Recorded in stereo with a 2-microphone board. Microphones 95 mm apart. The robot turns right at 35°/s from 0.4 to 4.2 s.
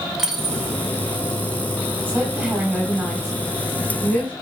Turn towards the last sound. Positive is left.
turn(degrees=15)  # may be behind; listen again after turning